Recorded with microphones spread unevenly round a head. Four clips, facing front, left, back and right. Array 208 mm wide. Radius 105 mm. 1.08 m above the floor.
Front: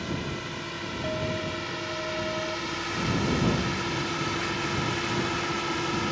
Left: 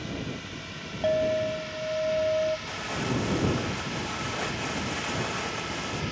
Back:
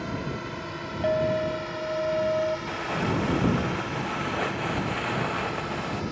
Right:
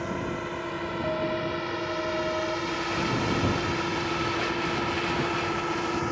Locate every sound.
0.0 s a drone: 90° right; by 6.1 s 55° right
1.0 s a clink: 145° left
2.7 s crumpling: 175° left